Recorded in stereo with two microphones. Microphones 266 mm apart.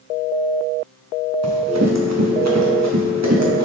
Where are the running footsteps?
70° right (ahead or behind), 2 m; by 3.6 s 85° right, 3 m.